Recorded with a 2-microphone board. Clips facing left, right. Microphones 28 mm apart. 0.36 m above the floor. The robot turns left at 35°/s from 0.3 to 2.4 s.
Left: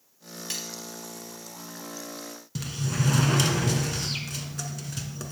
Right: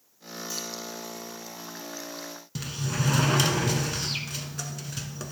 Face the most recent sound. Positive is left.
turn(degrees=-10)  # may be behind; listen again after turning